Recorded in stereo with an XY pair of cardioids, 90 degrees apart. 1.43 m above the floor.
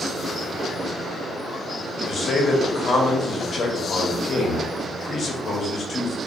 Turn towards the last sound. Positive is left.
turn(degrees=55)